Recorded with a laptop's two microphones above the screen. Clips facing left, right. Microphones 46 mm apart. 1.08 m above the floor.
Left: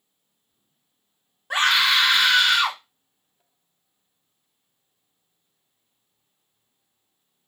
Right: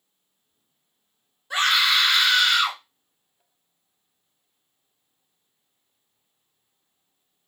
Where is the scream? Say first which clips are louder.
Left 1 dB; 50° left (ahead or behind), 1.5 m.